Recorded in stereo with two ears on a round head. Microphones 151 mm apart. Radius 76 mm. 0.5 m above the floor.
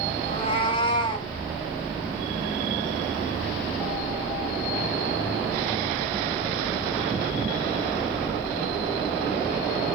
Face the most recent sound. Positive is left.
turn(degrees=30)  # may be behind; listen again after turning